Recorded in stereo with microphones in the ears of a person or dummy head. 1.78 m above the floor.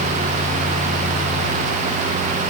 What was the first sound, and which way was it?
Only background noise.